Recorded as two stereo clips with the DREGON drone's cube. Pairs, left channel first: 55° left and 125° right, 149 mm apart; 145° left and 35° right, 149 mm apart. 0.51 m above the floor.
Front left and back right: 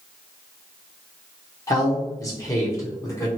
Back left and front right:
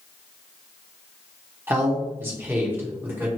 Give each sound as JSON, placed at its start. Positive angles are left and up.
{"t": 1.7, "sound": "a man speaking", "azimuth_deg": 20, "distance_m": 0.9}